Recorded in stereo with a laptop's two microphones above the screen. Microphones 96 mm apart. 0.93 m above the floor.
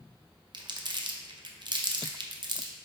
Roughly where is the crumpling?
Right.